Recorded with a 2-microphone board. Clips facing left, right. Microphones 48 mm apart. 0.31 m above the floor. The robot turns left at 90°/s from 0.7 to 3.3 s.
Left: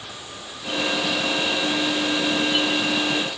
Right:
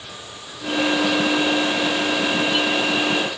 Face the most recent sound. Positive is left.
No sound to turn to.